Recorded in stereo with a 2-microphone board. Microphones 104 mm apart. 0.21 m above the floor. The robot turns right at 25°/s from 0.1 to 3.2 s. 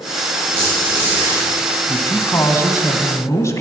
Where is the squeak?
40° right (ahead or behind), 6.5 m; by 1.5 s 15° right (ahead or behind), 6.5 m.